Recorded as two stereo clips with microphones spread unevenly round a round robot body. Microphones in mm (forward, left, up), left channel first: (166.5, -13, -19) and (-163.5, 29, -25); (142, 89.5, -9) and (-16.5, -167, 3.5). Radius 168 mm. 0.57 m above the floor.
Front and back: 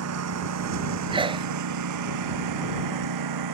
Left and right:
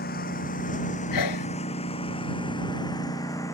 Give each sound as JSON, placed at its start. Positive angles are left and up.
{"t": 0.0, "sound": "a lawn mower", "azimuth_deg": 125}
{"t": 1.1, "sound": "a sneeze", "azimuth_deg": 95}